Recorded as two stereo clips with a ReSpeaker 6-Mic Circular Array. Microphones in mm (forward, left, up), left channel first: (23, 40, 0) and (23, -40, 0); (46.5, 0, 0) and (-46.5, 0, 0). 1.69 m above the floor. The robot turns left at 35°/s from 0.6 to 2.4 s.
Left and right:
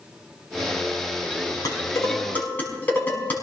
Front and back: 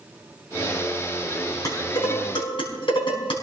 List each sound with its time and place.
1.6 s dishes clattering: 45° left, 5.5 m; by 3.4 s 20° left, 5.5 m